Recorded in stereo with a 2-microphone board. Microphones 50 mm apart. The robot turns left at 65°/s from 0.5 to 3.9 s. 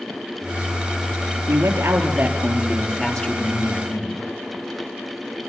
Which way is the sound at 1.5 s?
100° right.